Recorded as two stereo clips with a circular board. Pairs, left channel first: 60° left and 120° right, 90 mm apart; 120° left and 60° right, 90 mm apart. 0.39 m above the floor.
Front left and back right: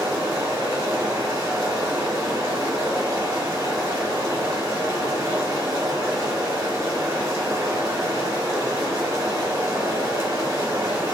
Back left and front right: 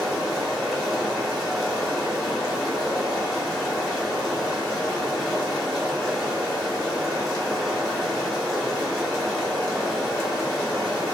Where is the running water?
150° right, 1.0 m.